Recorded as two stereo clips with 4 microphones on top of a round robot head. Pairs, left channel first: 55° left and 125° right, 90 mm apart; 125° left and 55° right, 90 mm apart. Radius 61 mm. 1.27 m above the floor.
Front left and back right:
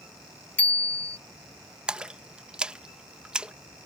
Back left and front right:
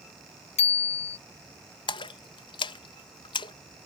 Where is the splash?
155° left.